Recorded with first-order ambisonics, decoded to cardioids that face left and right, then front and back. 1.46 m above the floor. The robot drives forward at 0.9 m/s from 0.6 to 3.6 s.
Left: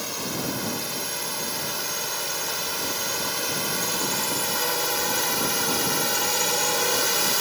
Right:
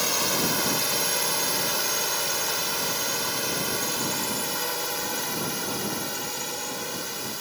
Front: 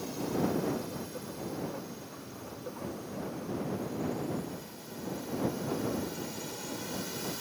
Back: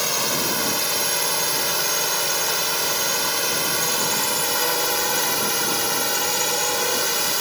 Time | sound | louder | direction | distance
0.0 | a drone | right 5 dB, back 11 dB | 155° right | ?